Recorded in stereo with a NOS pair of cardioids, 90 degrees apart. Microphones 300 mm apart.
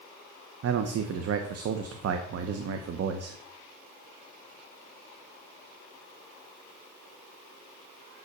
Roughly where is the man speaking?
Ahead right.